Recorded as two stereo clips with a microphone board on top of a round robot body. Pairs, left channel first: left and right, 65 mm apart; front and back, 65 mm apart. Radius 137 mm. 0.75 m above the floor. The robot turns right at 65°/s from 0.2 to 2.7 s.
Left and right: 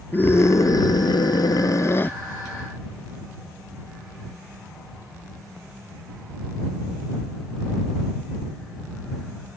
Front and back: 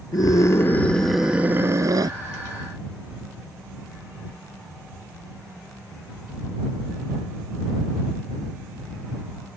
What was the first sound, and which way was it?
A scream, 30° left.